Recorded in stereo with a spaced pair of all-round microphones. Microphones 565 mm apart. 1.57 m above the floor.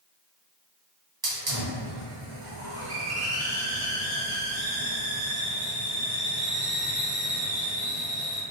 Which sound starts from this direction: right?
A hiss, at 1.2 s.